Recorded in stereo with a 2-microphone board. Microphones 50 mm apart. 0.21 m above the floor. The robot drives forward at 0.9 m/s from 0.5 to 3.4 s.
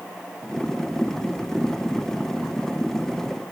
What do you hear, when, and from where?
Only background noise.